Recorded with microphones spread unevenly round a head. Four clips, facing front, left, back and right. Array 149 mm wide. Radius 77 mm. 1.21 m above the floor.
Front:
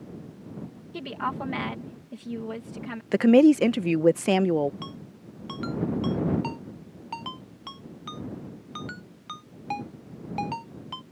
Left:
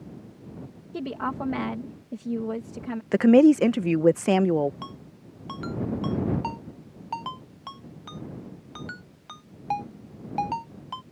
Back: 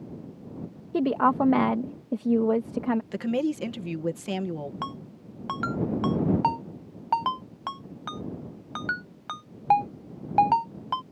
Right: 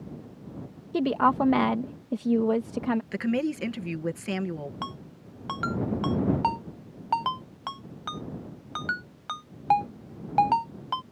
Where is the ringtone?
160° right.